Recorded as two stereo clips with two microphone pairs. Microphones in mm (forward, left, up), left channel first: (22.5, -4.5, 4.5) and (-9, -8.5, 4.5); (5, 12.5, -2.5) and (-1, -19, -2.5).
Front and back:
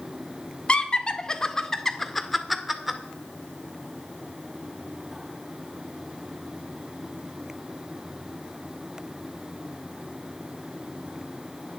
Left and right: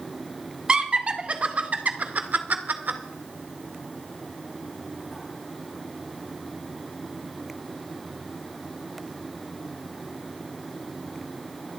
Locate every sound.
0.7 s laughter: 45° right, 1.6 m; by 3.0 s 90° right, 2.0 m